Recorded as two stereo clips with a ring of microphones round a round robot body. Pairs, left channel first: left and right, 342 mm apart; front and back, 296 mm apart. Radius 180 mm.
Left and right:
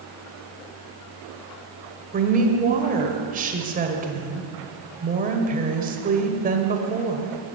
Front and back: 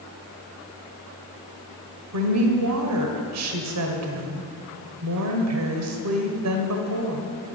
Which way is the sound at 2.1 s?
155° right.